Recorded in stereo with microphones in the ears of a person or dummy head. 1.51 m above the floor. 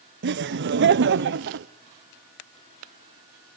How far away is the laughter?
About 0.8 m.